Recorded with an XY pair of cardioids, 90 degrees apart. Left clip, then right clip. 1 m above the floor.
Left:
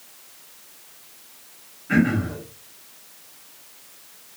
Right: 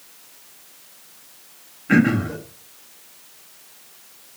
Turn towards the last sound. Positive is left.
turn(degrees=-60)